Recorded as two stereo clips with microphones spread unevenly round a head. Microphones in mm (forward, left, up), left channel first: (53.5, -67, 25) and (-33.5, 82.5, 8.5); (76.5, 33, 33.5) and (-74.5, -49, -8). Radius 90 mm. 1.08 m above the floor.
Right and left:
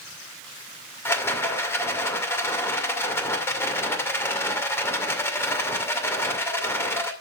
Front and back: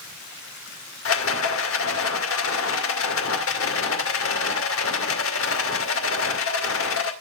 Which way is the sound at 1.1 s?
15° left.